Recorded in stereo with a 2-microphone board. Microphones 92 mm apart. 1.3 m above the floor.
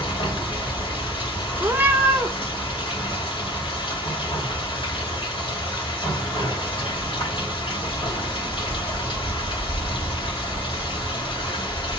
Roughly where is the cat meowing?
Right.